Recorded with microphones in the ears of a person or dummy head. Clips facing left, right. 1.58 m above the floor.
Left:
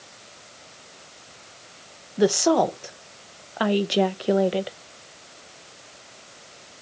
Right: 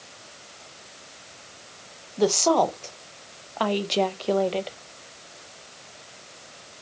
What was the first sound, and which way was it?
A woman speaking, 15° left (ahead or behind).